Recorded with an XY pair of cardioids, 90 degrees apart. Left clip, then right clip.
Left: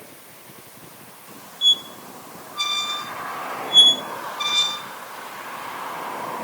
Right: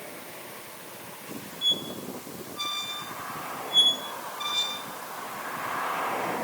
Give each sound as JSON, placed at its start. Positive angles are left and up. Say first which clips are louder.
{"t": 1.6, "sound": "a squeak", "louder": "left 8 dB", "azimuth_deg": 70, "distance_m": 0.8}